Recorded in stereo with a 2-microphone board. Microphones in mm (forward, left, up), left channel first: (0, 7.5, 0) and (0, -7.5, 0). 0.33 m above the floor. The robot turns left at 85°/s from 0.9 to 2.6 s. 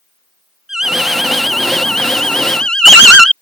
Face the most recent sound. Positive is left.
turn(degrees=80)